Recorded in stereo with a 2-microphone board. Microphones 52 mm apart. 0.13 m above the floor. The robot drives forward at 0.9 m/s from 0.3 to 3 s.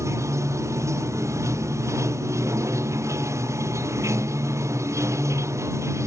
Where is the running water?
75° right (ahead or behind); by 6.1 s 70° right (ahead or behind).